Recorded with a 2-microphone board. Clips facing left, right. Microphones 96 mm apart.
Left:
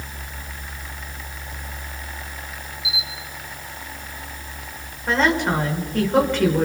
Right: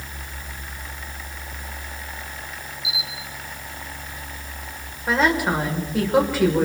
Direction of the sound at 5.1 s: 5° right (ahead or behind).